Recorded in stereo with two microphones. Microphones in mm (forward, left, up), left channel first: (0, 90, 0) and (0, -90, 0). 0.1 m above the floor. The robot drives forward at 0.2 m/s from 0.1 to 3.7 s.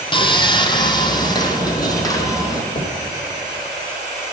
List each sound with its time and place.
0.1 s sawing: 30° left (ahead or behind), 0.9 m; by 2.6 s 20° left (ahead or behind), 1.4 m
2.7 s knocking: 65° left (ahead or behind), 2.5 m